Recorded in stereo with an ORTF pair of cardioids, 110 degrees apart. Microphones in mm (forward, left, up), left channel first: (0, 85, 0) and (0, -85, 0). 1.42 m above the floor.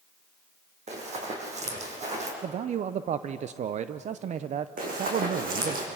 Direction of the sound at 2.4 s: 45° right.